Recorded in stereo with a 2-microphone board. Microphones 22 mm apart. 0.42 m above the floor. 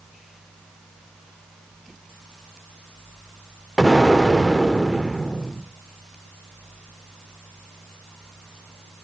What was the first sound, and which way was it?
An explosion, 15° right (ahead or behind).